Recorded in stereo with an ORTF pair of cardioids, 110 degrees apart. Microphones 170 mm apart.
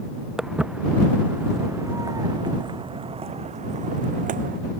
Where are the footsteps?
5° right; by 4.6 s 55° right.